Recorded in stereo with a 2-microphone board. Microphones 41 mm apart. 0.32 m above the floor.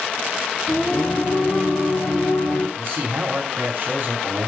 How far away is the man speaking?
About 2.5 m.